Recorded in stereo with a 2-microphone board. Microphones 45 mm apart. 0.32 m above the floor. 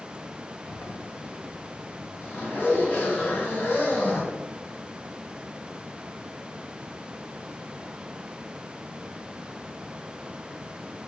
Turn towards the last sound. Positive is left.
turn(degrees=50)  # may be behind; listen again after turning